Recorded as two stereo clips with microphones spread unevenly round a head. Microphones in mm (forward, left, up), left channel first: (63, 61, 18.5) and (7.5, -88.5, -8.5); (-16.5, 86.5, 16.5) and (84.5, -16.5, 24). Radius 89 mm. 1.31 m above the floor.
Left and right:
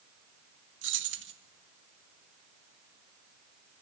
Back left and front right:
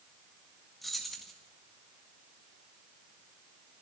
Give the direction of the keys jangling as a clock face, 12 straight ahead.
5 o'clock.